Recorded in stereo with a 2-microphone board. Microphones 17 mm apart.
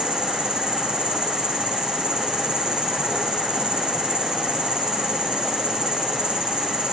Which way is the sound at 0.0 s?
50° right (ahead or behind).